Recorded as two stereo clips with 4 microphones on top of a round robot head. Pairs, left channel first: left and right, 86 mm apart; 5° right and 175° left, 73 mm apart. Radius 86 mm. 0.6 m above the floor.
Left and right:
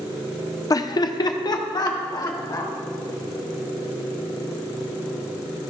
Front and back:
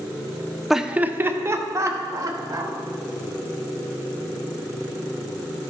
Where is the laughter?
85° left, 0.7 m; by 2.7 s 135° left, 2.5 m.